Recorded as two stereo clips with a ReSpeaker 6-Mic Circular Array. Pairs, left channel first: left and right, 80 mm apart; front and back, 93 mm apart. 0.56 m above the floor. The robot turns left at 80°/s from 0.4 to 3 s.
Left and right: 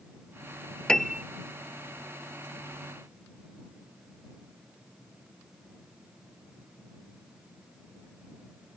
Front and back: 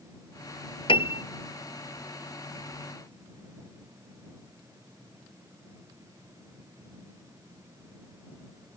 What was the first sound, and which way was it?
A piano, 10° left.